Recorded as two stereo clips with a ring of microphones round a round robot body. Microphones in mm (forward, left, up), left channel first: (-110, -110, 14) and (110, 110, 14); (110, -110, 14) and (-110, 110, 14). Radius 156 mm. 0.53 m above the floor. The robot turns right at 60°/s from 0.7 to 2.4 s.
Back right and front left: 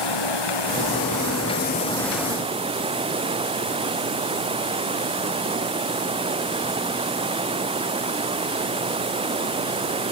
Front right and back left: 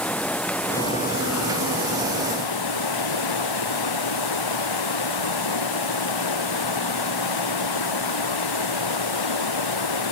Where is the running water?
130° right; by 10.1 s 30° right.